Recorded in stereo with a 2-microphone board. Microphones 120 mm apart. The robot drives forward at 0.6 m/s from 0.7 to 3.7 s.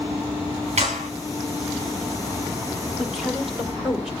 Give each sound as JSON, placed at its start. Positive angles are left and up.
{"t": 0.8, "sound": "a clap", "side_deg": -75, "distance_m": 5.5}
{"t": 3.0, "sound": "a woman speaking", "side_deg": -5, "distance_m": 2.0}